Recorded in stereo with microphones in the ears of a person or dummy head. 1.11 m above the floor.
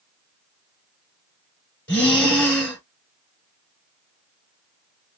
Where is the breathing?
10° left (ahead or behind), 1.2 m.